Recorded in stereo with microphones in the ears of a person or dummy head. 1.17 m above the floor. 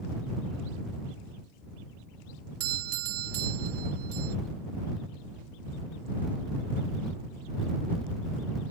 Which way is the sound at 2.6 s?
65° right (ahead or behind).